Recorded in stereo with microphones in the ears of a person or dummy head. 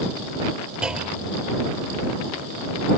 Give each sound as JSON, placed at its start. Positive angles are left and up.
{"t": 0.8, "sound": "a clunk", "side_deg": -5}